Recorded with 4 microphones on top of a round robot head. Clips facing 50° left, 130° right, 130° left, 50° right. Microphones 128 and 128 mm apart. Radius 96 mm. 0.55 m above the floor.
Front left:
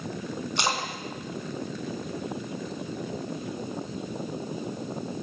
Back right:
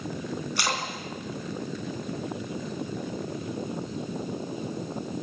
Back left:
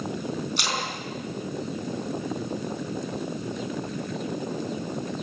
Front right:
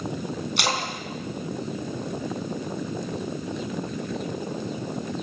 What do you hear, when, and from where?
0.6 s a splash: 20° right, 3 m